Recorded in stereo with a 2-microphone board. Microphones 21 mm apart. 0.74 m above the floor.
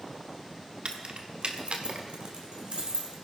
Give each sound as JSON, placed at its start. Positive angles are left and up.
{"t": 0.8, "sound": "keys jangling", "side_deg": -65, "distance_m": 1.2}